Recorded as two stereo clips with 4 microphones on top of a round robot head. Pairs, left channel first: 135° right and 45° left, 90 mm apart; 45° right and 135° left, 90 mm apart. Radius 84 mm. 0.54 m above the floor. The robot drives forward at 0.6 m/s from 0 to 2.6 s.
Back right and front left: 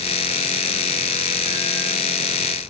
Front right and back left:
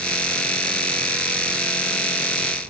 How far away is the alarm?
No alarm in this recording.